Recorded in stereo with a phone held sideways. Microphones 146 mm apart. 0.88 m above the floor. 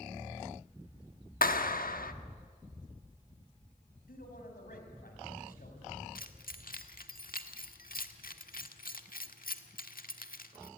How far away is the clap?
About 1.2 m.